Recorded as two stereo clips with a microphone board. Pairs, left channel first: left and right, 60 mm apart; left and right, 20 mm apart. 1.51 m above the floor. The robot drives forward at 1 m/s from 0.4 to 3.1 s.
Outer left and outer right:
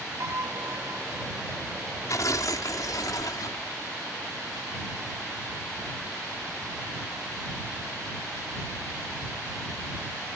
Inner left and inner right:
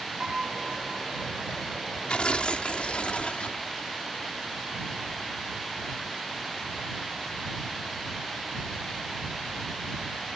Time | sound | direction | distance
0.2 | a piano | 55° right (ahead or behind) | ?
2.1 | tearing paper | 60° left (ahead or behind) | ?